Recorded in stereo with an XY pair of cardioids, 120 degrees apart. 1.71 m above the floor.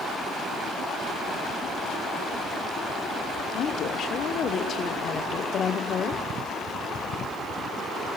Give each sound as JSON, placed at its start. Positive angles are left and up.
{"t": 3.5, "sound": "a woman speaking", "azimuth_deg": 55, "distance_m": 3.0}